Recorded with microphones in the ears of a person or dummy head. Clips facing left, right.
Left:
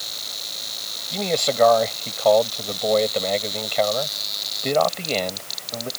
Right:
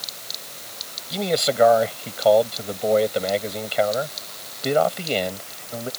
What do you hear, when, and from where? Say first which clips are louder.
1.1 s a man speaking: right 1 dB; 5° right (ahead or behind)